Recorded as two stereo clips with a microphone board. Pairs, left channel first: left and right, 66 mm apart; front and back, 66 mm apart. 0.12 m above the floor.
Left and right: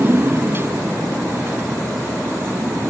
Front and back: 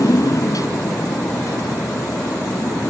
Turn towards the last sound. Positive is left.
turn(degrees=-35)